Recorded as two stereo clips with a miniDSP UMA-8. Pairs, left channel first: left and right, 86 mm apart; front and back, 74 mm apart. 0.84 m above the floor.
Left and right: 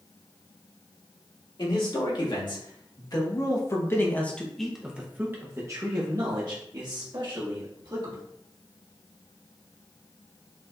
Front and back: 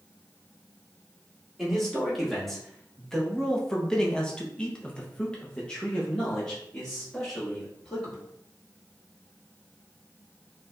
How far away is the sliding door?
No sliding door in this recording.